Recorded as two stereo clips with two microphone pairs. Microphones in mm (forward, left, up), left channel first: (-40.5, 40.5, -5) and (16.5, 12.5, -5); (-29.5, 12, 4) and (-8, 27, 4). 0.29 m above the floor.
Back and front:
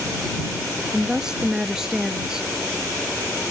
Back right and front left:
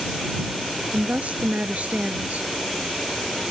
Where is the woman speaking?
55° left.